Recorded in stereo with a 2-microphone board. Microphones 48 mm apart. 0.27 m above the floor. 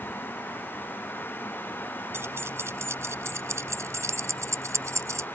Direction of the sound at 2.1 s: 55° right (ahead or behind).